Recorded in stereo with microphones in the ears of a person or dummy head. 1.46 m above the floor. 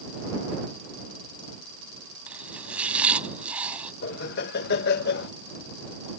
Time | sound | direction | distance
2.3 | chopping | 10° right (ahead or behind) | ?
4.0 | laughter | 60° left (ahead or behind) | ?